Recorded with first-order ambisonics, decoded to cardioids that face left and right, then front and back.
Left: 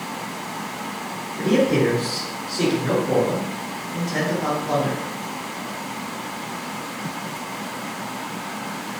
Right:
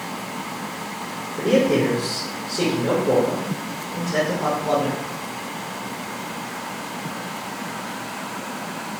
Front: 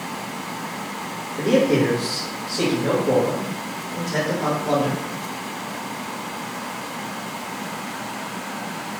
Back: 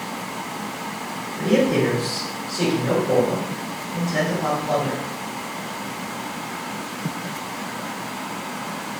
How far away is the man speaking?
About 1.8 m.